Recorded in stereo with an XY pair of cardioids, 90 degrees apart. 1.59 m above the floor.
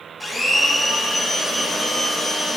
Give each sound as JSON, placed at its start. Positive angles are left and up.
{"t": 0.2, "sound": "a blender", "azimuth_deg": 25, "distance_m": 2.0}